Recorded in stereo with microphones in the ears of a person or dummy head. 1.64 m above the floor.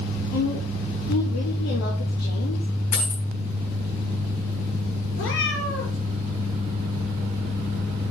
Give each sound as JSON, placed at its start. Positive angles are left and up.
{"t": 0.3, "sound": "a woman speaking", "side_deg": 65, "distance_m": 3.0}
{"t": 2.9, "sound": "a dropped coin", "side_deg": 45, "distance_m": 6.5}
{"t": 5.2, "sound": "a cat meowing", "side_deg": 75, "distance_m": 5.5}